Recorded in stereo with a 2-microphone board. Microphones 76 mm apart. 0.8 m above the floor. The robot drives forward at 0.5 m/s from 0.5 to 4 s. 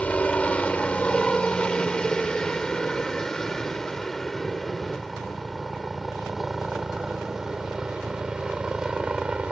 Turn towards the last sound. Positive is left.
turn(degrees=-10)  # may be behind; listen again after turning